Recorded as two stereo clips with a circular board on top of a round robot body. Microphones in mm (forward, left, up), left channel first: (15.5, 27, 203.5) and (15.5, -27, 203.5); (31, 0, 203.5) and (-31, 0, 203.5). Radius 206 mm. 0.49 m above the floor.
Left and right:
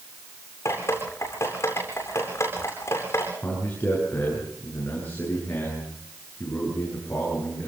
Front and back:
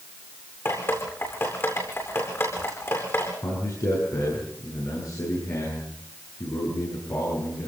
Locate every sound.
0.7 s dripping: 50° left, 8.5 m
3.4 s a man speaking: 25° left, 10 m